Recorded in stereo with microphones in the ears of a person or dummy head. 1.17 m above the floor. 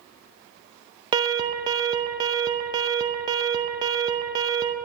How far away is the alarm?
About 0.6 m.